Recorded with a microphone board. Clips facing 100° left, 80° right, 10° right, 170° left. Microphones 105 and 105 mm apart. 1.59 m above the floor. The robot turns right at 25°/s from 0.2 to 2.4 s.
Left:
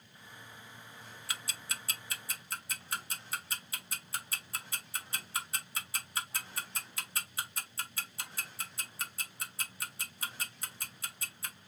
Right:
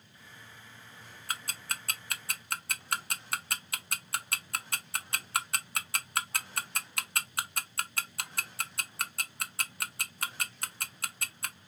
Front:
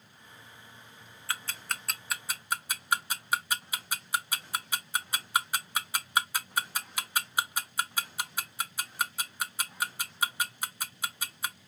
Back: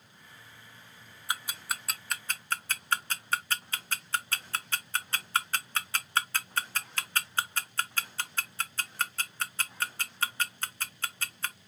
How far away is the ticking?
About 0.5 m.